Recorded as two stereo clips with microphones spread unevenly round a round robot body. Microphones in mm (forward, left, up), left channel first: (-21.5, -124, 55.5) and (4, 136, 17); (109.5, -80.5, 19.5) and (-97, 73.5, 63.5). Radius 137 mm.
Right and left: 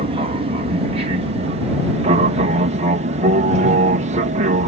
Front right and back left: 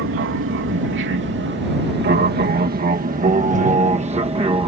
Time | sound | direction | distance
0.0 | an aircraft | 130° left | ?